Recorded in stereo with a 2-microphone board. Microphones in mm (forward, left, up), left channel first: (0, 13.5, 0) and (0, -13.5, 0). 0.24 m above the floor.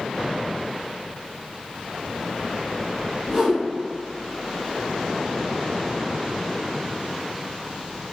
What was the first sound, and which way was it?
A whoosh, 5° left (ahead or behind).